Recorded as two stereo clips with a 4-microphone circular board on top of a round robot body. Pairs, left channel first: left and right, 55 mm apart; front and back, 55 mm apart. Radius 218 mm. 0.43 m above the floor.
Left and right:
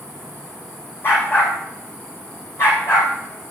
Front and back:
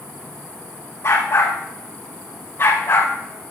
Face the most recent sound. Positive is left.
turn(degrees=45)